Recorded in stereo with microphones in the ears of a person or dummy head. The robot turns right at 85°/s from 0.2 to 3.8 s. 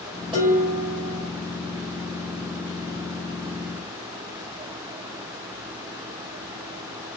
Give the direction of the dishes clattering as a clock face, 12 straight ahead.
1 o'clock.